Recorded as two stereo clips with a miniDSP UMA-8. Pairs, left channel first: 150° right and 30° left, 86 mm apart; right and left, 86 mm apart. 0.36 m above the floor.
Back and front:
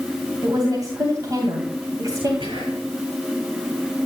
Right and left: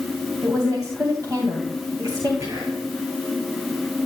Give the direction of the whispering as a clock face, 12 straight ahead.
11 o'clock.